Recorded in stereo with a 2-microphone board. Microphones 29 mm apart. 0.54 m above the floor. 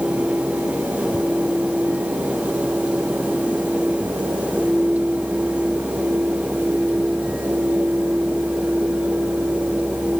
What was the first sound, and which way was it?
Only background noise.